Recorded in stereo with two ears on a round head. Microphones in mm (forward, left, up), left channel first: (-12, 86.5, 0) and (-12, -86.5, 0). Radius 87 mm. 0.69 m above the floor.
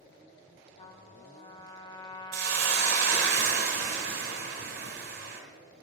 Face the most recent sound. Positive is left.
turn(degrees=-55)  # may be behind; listen again after turning